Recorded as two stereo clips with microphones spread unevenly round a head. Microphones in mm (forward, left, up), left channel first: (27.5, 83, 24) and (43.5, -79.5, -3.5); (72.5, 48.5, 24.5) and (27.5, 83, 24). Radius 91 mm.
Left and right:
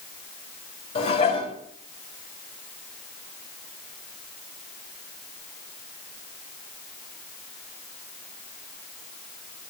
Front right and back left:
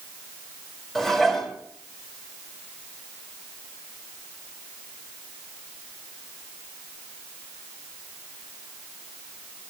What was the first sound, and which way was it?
Dishes clattering, 45° left.